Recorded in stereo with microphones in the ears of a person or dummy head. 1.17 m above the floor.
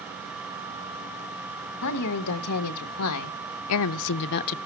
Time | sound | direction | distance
1.7 | a woman speaking | 75° left (ahead or behind) | 1.8 m